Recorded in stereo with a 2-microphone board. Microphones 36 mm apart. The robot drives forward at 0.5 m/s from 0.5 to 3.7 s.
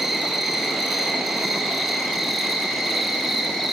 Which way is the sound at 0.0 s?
Centre (ahead or behind).